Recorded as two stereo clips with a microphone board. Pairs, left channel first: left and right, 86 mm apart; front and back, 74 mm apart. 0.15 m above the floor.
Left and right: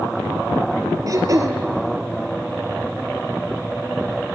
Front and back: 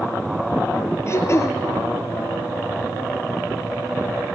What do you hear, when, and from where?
1.1 s throat clearing: 45° right, 1.2 m